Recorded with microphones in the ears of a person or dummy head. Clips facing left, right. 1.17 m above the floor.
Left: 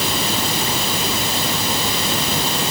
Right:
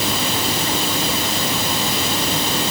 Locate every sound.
Only background noise.